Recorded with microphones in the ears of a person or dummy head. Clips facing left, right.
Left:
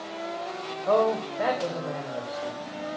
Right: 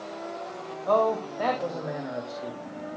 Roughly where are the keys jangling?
No keys jangling in this recording.